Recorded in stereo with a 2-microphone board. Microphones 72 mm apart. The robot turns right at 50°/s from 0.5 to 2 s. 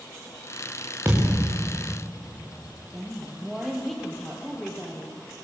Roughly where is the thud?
Ahead right.